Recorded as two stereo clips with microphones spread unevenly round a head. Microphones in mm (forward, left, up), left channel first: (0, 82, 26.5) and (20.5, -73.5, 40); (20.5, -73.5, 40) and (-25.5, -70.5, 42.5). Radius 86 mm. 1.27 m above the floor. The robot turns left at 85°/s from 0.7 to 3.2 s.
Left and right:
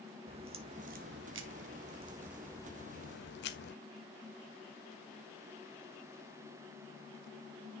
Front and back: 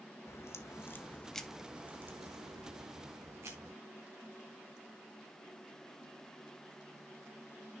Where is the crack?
30° right, 1.4 m; by 3.8 s 120° left, 1.4 m.